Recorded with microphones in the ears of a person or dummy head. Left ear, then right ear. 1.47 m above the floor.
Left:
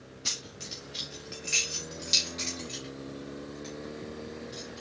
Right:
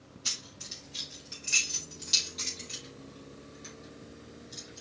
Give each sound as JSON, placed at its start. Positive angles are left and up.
{"t": 0.2, "sound": "keys jangling", "side_deg": 10, "distance_m": 2.0}